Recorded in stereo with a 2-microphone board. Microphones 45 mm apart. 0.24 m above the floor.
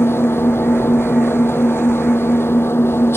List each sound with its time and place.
0.0 s an engine running: 65° left (ahead or behind)